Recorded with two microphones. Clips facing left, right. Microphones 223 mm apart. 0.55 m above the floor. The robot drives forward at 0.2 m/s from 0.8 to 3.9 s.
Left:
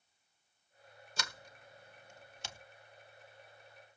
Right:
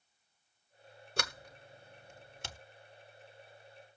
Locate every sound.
1.2 s a sliding door: 60° right (ahead or behind), 1.1 m; by 2.6 s 55° right (ahead or behind), 1.2 m